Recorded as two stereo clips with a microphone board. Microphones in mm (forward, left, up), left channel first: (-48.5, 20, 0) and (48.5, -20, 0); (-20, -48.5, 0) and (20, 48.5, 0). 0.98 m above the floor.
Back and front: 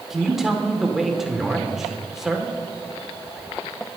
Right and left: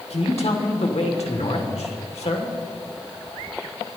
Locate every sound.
0.1 s a man speaking: 110° right, 2.5 m